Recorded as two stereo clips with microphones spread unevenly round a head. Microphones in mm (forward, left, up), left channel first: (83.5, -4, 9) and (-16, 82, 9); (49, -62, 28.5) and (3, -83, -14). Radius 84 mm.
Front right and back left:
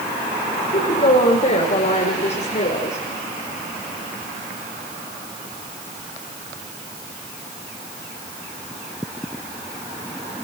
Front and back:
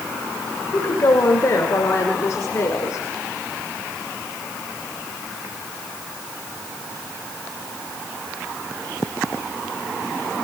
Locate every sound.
0.7 s a woman speaking: 5° right, 6 m; by 3.0 s 10° right, 4 m